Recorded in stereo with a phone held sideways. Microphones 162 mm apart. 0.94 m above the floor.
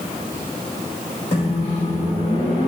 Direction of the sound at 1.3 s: 45° left (ahead or behind).